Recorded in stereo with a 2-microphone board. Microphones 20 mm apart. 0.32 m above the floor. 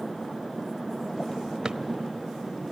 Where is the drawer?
35° right (ahead or behind), 0.6 m.